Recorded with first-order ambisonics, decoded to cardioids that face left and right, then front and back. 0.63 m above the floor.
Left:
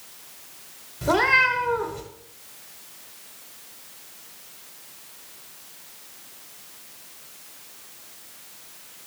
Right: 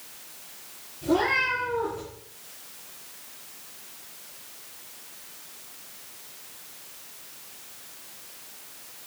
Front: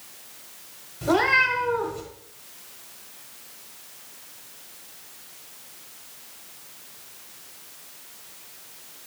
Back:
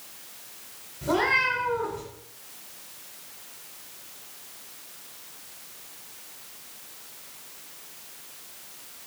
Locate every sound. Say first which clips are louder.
1.0 s a cat meowing: left 5 dB, front 3 dB; 60° left, 0.9 m